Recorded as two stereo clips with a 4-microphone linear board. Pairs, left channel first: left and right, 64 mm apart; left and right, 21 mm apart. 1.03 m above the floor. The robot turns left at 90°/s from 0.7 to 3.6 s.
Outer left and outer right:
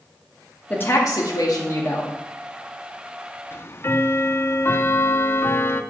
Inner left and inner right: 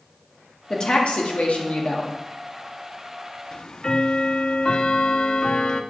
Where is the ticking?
35° left (ahead or behind), 0.5 m; by 5.8 s 40° left (ahead or behind), 0.5 m.